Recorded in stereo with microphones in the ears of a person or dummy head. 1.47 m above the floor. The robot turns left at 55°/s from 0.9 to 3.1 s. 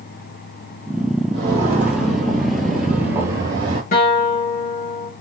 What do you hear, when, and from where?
1.3 s footsteps: 25° right (ahead or behind), 1.9 m; by 3.8 s 30° right (ahead or behind), 1.7 m
3.9 s a guitar: 40° left (ahead or behind), 1.4 m